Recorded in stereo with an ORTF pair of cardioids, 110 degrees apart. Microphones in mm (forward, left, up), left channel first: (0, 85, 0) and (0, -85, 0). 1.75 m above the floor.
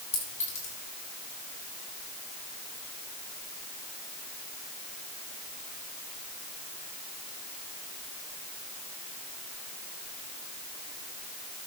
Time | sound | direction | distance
0.1 | a clink | 45° left | 8.5 m